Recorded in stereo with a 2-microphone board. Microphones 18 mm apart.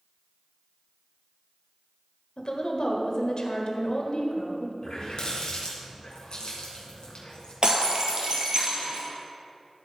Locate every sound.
2.4 s a woman speaking: 55° left (ahead or behind), 1.6 m
4.8 s a running tap: 55° left (ahead or behind), 3 m
7.6 s breaking glass: 50° right (ahead or behind), 1.9 m